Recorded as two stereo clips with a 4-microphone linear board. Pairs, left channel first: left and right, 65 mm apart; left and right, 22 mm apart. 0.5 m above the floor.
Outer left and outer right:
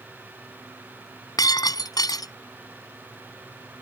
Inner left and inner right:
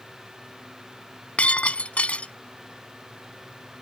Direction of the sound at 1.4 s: 80° left.